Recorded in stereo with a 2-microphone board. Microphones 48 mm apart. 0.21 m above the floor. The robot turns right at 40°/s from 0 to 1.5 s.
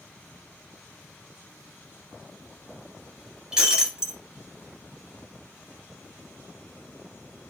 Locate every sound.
3.5 s breaking glass: 15° right (ahead or behind), 1.3 m